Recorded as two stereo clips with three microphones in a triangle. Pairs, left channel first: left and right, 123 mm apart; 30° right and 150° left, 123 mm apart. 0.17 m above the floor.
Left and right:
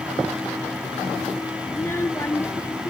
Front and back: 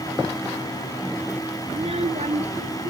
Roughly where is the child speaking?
Behind left.